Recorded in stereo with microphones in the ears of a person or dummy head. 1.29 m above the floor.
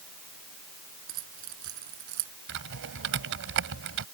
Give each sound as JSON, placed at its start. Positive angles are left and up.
{"t": 1.1, "sound": "keys jangling", "side_deg": -70}
{"t": 2.5, "sound": "typing on a keyboard", "side_deg": -70}